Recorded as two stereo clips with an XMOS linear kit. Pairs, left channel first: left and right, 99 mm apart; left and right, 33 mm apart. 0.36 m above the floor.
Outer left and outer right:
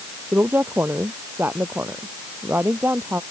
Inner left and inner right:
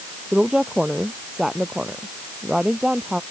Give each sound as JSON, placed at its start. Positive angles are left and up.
{"t": 0.3, "sound": "a woman speaking", "side_deg": -20}